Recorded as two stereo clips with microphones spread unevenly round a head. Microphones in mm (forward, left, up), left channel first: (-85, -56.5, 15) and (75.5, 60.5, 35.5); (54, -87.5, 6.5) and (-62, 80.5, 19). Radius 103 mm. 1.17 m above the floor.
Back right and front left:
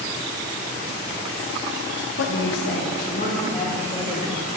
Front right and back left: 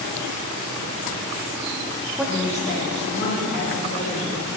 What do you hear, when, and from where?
2.2 s a woman speaking: 150° right, 0.7 m; by 4.5 s 75° right, 3 m